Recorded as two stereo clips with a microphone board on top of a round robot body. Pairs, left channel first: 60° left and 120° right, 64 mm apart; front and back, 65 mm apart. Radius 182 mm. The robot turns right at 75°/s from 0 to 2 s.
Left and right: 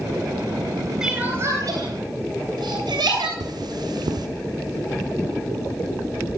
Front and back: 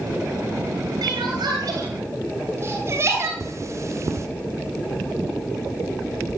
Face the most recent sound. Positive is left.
turn(degrees=-135)